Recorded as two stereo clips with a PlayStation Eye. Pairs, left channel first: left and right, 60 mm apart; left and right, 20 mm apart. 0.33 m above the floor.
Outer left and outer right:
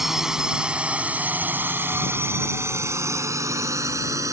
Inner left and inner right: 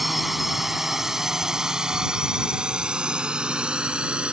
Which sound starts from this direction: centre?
A drone, at 0.0 s.